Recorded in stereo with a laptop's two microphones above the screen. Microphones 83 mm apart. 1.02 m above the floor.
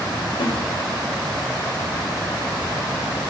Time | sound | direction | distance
0.4 | a snare drum | 85° left | 4 m